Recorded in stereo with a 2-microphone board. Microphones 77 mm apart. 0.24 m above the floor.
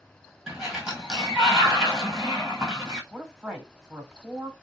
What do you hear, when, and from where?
0.5 s a sliding door: 5° right (ahead or behind), 1.4 m
3.1 s a woman speaking: 10° right (ahead or behind), 1.0 m